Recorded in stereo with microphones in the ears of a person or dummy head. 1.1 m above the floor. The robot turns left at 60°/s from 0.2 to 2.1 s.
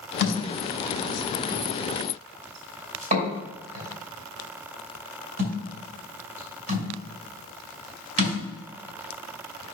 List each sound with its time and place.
0.2 s a thud: 65° left (ahead or behind), 3.5 m; by 8.4 s 50° right (ahead or behind), 3.5 m